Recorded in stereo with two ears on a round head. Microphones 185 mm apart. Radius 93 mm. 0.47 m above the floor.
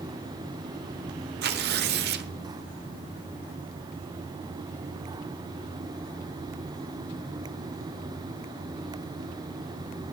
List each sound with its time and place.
1.4 s tearing paper: 50° right (ahead or behind), 1.1 m